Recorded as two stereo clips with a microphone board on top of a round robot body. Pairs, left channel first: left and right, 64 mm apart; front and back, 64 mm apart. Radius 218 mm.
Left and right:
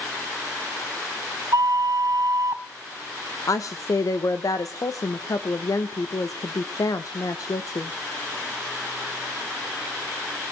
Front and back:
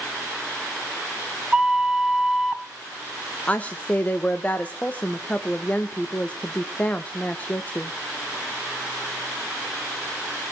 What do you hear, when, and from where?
1.5 s a flute: 100° right, 1.5 m
3.5 s a woman speaking: 65° left, 1.6 m